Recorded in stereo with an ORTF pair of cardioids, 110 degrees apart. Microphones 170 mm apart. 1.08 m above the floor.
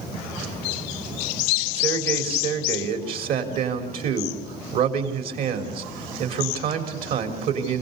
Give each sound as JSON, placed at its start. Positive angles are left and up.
{"t": 1.8, "sound": "a man speaking", "azimuth_deg": -70, "distance_m": 3.5}